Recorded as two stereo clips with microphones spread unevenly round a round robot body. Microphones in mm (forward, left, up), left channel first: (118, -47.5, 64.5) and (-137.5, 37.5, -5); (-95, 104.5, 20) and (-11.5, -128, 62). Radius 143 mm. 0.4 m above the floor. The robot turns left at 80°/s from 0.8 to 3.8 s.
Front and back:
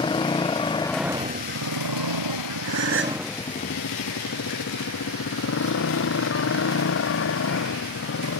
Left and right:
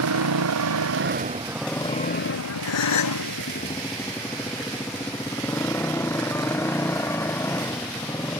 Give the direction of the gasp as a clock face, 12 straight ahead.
7 o'clock.